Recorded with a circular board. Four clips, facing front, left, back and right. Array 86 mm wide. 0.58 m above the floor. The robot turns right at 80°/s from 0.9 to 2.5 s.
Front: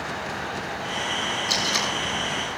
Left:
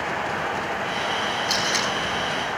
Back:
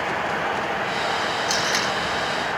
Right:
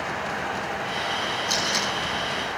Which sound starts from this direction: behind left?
Tape being pulled, at 1.5 s.